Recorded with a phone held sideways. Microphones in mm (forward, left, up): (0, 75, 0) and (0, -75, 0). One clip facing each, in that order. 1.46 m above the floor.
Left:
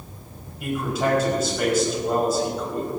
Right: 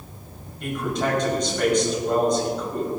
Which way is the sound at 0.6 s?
5° left (ahead or behind).